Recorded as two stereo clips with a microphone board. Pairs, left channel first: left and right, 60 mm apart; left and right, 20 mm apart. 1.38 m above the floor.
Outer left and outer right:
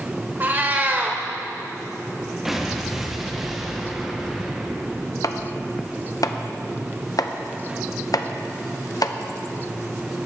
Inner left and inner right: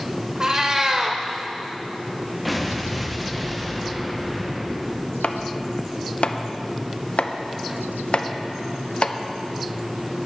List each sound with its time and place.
0.4 s a cat meowing: 30° right (ahead or behind), 1.4 m
2.5 s an explosion: 5° right (ahead or behind), 1.1 m
5.2 s chopping: 70° left (ahead or behind), 0.7 m